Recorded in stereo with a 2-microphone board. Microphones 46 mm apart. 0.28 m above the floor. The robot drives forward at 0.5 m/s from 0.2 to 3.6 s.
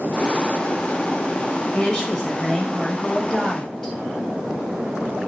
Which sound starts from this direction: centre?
A woman speaking, at 1.7 s.